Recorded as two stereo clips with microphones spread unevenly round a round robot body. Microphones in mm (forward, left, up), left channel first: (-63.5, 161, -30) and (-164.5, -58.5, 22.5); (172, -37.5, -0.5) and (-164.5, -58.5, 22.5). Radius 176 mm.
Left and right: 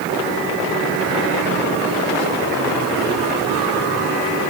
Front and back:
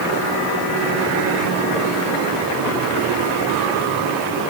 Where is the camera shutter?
I don't hear a camera shutter.